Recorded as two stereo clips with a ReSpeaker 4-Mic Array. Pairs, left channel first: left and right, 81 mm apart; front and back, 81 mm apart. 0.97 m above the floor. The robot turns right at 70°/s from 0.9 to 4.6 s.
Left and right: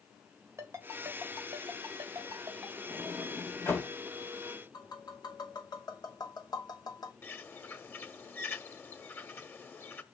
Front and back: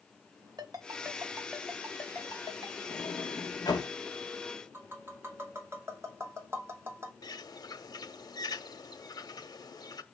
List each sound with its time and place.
0.6 s a ringtone: 145° right, 2.5 m; by 2.8 s 15° right, 2.5 m
2.9 s a sliding door: 25° right, 4.5 m; by 3.9 s 45° left, 4.5 m
4.7 s tapping: 120° left, 2.5 m
7.2 s a bird: 30° left, 1.0 m